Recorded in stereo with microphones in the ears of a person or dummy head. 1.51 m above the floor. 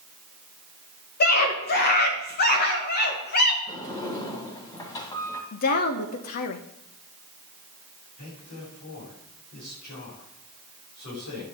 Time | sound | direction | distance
1.2 | a scream | 50° left (ahead or behind) | 2.5 m
3.7 | a sliding door | 25° left (ahead or behind) | 1.8 m
5.5 | a woman speaking | 50° left (ahead or behind) | 1.0 m
8.2 | a man speaking | 50° left (ahead or behind) | 8 m